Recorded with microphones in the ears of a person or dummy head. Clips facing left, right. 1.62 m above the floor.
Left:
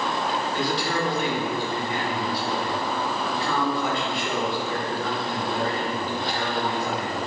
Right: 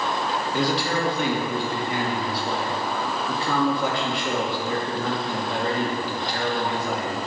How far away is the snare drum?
No snare drum in this recording.